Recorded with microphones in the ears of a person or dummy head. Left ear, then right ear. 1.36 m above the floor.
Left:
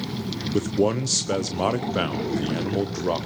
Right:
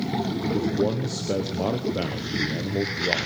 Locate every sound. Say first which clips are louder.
0.5 s a man speaking: left 4 dB; 50° left (ahead or behind), 0.8 m